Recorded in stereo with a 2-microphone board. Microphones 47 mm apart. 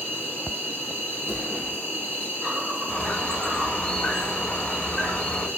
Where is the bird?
25° left (ahead or behind), 0.8 m.